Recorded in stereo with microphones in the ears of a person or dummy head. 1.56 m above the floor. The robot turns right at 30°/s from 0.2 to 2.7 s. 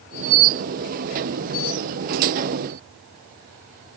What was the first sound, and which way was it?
Only background noise.